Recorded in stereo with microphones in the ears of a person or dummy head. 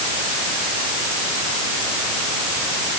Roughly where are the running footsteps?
I don't hear running footsteps.